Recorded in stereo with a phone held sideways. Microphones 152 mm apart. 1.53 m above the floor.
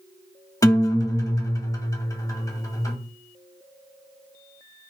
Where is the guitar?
20° left (ahead or behind), 0.6 m.